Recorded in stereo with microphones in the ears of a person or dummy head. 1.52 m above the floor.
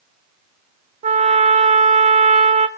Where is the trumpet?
35° right (ahead or behind), 0.8 m.